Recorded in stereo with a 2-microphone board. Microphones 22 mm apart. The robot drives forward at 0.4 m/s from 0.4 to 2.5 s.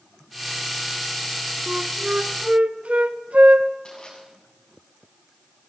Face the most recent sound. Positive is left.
turn(degrees=35)  # may be behind; listen again after turning